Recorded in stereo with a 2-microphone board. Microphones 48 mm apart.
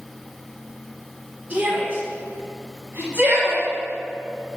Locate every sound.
1.5 s a shout: 40° right (ahead or behind), 2 m